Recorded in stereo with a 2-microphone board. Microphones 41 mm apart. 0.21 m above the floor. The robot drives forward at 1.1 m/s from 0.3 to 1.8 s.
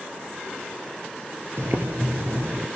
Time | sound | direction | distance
1.6 | boiling | 85° right | 0.8 m